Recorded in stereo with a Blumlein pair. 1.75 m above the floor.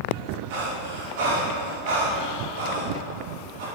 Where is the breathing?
50° right, 3.5 m.